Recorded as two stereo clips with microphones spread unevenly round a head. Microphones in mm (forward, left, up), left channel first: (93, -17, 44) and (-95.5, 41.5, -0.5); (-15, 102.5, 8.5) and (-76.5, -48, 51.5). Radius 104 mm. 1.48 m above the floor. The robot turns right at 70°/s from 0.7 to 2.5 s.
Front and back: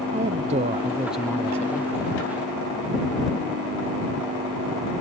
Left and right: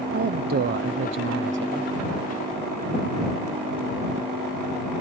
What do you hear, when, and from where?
0.1 s a woman speaking: 145° right; by 1.9 s 60° right